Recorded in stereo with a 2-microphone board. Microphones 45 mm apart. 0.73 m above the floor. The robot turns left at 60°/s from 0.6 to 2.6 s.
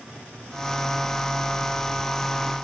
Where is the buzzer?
I don't hear a buzzer.